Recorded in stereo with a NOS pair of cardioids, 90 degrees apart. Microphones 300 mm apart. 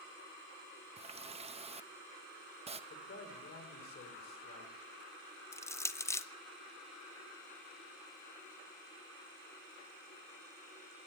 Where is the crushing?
10° left, 0.6 m.